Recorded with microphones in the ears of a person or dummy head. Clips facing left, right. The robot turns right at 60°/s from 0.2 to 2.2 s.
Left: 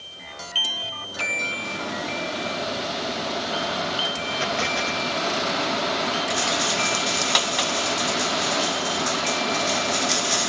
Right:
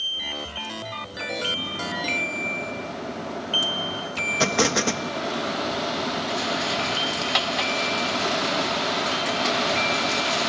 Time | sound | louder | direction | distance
4.4 | an explosion | right 6 dB | 60° right (ahead or behind) | ?
6.3 | a rattle | left 1 dB | 50° left (ahead or behind) | ?